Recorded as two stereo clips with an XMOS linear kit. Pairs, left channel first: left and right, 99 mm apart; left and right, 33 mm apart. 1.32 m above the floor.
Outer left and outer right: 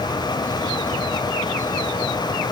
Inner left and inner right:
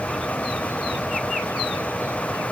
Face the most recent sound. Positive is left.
No sound to turn to.